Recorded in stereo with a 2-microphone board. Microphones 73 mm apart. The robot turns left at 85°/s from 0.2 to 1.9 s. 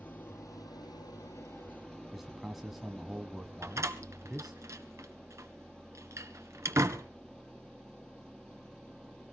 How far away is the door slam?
About 1.6 m.